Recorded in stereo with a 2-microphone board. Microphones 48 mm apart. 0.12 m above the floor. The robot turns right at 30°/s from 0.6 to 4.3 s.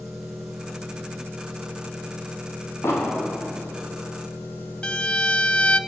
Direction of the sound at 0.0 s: 5° right.